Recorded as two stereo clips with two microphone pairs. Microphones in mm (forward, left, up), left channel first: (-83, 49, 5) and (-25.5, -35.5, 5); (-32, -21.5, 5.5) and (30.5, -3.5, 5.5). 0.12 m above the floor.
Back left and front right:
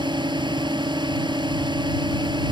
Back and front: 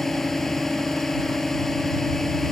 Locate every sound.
0.0 s a drone: 80° right